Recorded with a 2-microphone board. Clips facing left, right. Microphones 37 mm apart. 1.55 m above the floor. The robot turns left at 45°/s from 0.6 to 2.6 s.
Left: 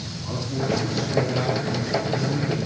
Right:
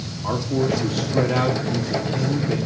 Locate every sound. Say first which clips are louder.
0.2 s a man speaking: right 5 dB; 60° right, 3.5 m; by 2.6 s 150° right, 3.5 m